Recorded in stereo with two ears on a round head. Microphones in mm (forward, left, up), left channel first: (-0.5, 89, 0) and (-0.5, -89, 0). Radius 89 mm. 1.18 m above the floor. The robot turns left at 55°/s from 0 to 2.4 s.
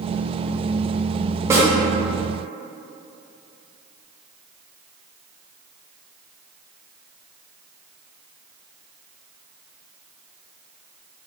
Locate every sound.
1.5 s a snare drum: 10° right (ahead or behind), 0.9 m; by 1.7 s 20° right (ahead or behind), 0.9 m